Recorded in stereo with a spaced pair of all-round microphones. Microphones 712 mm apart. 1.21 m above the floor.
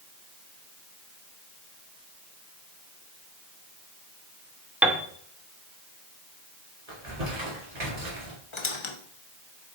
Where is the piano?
Centre (ahead or behind), 0.6 m.